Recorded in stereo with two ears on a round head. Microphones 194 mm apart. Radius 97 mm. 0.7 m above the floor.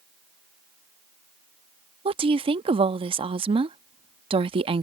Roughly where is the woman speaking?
Right.